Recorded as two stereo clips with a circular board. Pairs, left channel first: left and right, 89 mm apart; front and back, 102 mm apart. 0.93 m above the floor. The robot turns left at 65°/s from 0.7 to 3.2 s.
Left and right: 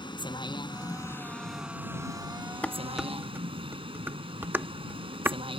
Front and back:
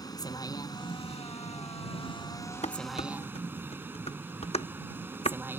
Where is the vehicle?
55° left; by 5.6 s 110° right.